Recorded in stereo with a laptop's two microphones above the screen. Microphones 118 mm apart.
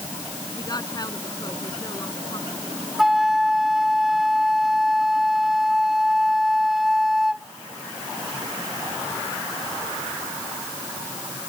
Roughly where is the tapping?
No tapping in this recording.